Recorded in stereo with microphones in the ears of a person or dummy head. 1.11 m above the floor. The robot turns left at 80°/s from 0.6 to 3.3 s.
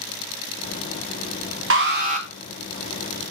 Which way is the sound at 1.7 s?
105° right.